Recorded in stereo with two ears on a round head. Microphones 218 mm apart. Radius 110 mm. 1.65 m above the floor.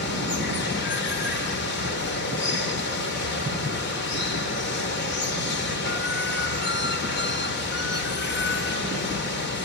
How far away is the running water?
About 2.5 m.